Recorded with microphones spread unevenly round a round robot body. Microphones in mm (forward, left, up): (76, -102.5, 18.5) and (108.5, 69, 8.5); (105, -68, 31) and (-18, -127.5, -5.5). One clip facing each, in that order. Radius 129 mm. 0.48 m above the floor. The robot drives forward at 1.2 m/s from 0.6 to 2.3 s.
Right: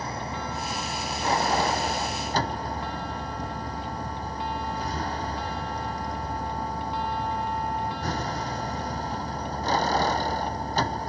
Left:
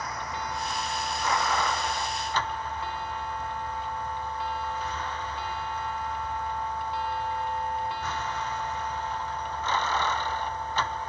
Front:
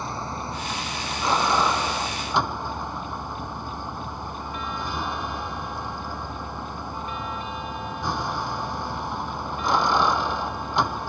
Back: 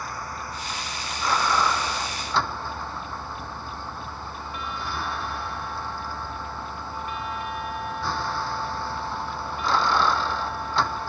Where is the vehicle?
40° right; by 11.1 s 45° right.